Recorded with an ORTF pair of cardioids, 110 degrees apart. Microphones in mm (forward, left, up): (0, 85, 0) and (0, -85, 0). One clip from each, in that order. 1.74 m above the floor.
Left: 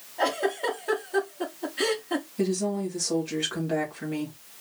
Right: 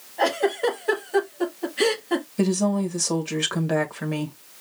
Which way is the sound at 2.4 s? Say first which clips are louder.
Right 3 dB; 45° right.